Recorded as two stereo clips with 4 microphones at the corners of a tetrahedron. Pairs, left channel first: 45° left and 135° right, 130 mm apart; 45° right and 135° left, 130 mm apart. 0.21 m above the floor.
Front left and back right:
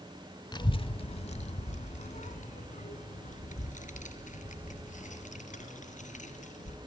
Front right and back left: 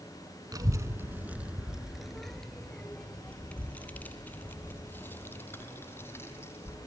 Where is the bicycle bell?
I don't hear a bicycle bell.